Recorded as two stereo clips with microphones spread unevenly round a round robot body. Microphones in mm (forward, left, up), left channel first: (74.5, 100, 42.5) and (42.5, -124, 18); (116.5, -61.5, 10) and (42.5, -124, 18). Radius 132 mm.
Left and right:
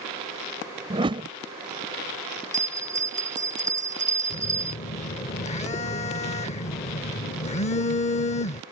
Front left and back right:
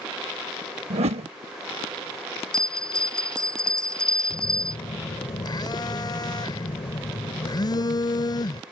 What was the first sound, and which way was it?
A whoosh, 165° right.